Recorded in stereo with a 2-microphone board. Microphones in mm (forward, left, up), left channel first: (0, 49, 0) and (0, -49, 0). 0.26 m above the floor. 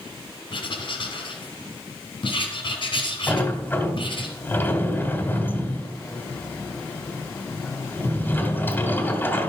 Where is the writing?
60° left (ahead or behind), 2.5 m.